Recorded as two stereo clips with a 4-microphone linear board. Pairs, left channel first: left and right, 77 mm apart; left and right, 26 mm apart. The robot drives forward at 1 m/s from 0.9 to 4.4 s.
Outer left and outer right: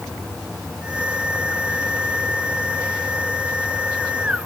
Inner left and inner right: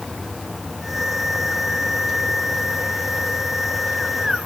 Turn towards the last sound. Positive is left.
No sound to turn to.